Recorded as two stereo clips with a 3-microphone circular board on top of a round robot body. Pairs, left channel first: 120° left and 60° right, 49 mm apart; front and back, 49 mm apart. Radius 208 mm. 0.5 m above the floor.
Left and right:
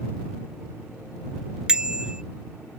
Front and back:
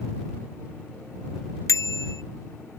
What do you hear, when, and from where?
1.7 s a bicycle bell: 10° left